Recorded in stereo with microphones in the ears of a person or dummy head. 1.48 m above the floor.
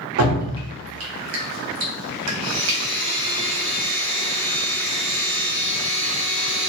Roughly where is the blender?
Left.